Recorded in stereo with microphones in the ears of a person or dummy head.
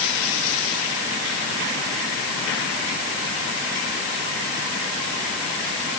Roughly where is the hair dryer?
I don't hear a hair dryer.